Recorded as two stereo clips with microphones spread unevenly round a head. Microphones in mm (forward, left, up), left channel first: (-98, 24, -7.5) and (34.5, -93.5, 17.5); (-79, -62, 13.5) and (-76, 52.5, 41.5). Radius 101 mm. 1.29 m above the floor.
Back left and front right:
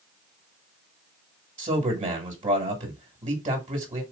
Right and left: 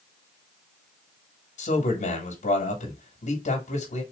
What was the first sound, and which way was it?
A man speaking, 100° right.